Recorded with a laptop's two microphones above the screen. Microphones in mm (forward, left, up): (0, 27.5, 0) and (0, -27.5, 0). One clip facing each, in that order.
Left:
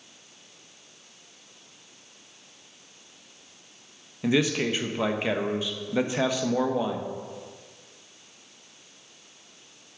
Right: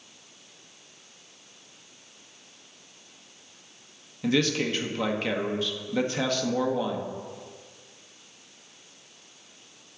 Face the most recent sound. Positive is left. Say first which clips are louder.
# left 1 dB
turn(degrees=15)  # may be behind; listen again after turning